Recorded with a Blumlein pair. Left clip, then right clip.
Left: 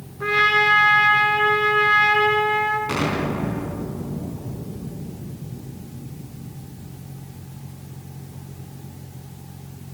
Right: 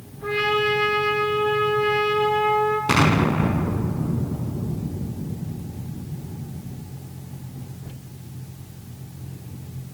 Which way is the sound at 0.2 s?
50° left.